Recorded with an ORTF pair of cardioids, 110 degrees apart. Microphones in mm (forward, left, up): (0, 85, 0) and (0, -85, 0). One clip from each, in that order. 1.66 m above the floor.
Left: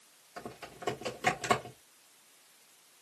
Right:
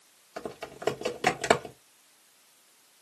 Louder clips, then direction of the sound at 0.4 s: Right 6 dB; 35° right.